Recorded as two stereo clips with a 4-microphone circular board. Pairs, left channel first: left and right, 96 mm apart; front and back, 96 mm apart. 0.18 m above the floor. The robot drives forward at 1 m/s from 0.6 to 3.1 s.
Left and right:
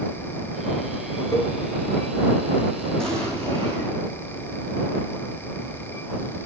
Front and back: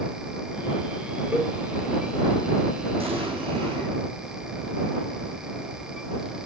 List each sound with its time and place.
1.3 s a cowbell: 110° left, 1.2 m; by 1.5 s 120° left, 1.3 m
3.0 s an explosion: 175° left, 3 m